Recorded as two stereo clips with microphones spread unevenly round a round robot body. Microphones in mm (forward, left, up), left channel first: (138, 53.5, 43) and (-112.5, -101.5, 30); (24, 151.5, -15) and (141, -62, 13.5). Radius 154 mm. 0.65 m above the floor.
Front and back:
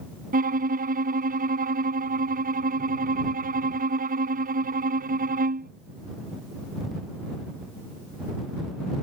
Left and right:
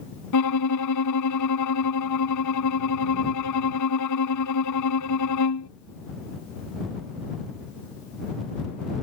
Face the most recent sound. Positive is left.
turn(degrees=145)